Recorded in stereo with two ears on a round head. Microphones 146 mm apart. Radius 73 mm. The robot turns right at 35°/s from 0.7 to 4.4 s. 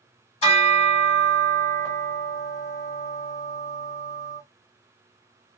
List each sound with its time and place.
0.4 s a bell: 130° left, 3.5 m; by 4.4 s 100° right, 3.5 m